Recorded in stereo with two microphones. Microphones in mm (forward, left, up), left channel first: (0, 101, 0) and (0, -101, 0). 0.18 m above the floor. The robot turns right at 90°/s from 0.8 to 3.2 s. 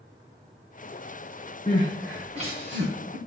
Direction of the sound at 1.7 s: 35° left (ahead or behind).